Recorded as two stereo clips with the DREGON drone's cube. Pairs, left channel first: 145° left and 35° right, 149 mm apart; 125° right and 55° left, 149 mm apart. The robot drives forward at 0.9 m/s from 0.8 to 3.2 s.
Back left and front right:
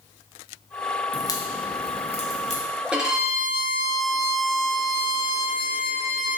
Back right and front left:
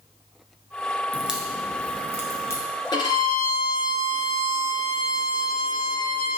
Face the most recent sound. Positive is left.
turn(degrees=-125)